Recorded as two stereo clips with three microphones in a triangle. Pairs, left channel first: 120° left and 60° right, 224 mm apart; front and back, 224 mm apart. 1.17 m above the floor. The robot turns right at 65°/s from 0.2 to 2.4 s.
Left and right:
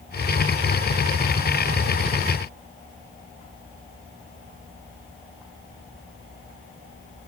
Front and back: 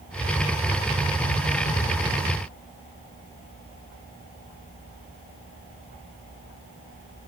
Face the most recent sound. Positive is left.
No sound to turn to.